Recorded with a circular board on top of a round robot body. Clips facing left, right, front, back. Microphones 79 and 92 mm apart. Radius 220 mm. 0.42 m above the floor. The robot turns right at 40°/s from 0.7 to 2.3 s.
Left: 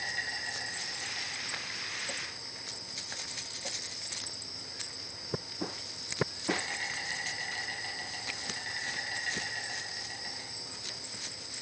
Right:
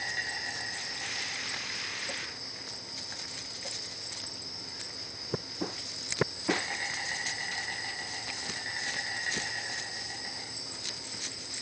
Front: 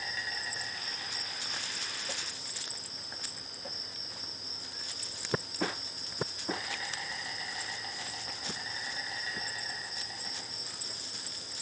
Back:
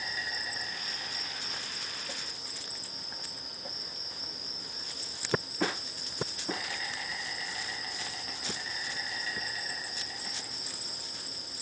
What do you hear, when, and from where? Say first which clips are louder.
0.0 s an insect: right 1 dB, back 1 dB; 110° right, 1.3 m; by 11.6 s 45° right, 1.3 m